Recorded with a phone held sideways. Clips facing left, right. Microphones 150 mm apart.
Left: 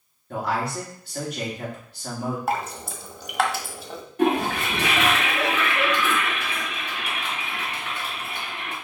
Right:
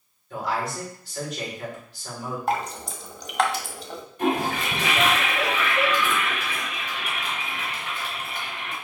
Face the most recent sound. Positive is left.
turn(degrees=70)  # may be behind; listen again after turning